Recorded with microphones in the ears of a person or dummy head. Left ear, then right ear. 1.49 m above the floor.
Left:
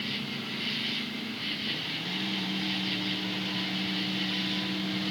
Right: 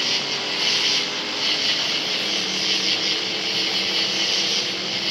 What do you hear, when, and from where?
0.0 s an insect: 65° right (ahead or behind)